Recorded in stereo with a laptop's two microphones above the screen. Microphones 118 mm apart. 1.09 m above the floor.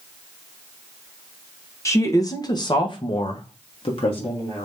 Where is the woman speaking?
25° left (ahead or behind), 1.1 m; by 4.7 s 50° left (ahead or behind), 1.2 m.